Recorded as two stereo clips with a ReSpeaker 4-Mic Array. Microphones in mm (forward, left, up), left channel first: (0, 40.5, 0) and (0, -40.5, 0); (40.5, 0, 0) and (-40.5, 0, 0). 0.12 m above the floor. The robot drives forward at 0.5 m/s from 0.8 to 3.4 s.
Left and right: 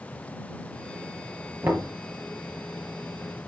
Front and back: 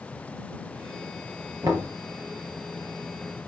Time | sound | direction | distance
1.6 | knocking | 150° right | 2.5 m